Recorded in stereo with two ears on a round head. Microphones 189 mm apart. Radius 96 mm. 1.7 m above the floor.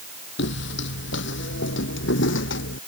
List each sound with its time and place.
0.4 s footsteps: 60° left (ahead or behind); by 2.8 s 65° left (ahead or behind)